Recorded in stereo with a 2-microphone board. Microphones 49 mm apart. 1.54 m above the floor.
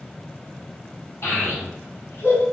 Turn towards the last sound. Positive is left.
turn(degrees=45)  # may be behind; listen again after turning